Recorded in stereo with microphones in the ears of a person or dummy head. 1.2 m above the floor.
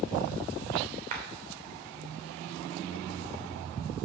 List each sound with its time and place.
1.1 s a clap: 40° right (ahead or behind), 3 m